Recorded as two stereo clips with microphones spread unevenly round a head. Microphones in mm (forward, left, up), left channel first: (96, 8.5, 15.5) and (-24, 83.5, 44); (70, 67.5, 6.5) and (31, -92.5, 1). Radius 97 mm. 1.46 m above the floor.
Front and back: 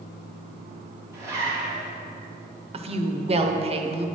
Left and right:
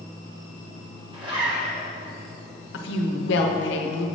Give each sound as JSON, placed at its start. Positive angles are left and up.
{"t": 1.1, "sound": "a zipper", "azimuth_deg": -155, "distance_m": 0.9}
{"t": 2.7, "sound": "a woman speaking", "azimuth_deg": 95, "distance_m": 0.7}